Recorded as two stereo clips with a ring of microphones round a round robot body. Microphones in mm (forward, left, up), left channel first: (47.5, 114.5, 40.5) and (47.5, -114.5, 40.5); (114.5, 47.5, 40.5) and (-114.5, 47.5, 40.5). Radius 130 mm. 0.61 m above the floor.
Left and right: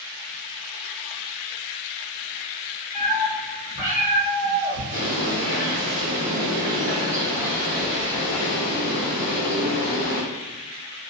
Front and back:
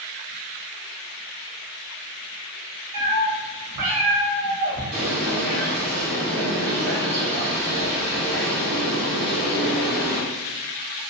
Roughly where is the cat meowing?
Behind.